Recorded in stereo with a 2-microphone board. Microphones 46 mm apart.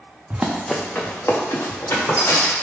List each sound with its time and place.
0.3 s running footsteps: 30° right (ahead or behind), 0.6 m; by 2.5 s 80° left, 2.0 m